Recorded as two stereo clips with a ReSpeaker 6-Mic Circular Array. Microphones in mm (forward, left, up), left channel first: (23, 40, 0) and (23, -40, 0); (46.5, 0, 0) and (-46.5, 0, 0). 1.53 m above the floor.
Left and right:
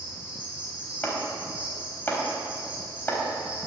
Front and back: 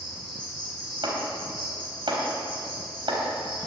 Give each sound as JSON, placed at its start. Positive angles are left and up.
{"t": 0.0, "sound": "an insect", "azimuth_deg": -165, "distance_m": 5.0}
{"t": 1.0, "sound": "chopping", "azimuth_deg": 155, "distance_m": 4.0}